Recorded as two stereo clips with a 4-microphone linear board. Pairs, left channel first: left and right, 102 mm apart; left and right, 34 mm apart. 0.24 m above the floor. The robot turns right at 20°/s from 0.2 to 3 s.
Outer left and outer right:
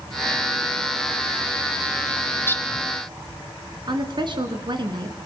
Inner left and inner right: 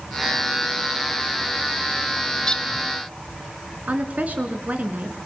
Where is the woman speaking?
50° right (ahead or behind), 3.5 m.